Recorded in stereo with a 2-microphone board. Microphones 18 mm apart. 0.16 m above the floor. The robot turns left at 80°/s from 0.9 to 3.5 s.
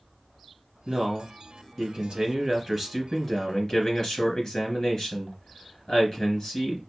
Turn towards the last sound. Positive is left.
turn(degrees=125)